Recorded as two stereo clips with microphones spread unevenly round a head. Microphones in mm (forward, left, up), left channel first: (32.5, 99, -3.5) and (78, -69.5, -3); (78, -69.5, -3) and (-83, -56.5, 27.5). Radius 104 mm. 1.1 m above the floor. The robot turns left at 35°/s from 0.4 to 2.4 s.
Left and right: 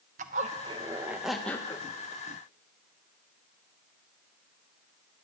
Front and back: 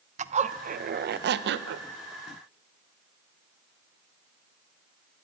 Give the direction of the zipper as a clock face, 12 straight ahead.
4 o'clock.